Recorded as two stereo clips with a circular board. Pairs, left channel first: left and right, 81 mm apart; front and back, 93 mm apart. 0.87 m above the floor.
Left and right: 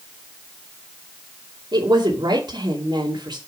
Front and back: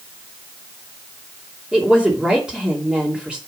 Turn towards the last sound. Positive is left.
turn(degrees=-100)